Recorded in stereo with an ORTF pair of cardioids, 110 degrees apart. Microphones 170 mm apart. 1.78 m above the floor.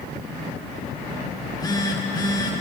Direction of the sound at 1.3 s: 20° left.